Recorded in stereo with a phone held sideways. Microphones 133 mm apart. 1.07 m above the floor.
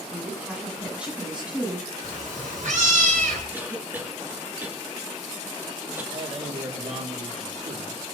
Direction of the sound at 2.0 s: 75° right (ahead or behind).